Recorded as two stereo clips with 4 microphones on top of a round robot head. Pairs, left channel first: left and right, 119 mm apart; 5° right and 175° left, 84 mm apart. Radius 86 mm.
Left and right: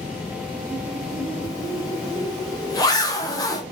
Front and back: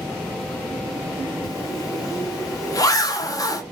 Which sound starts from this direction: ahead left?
A zipper, at 1.4 s.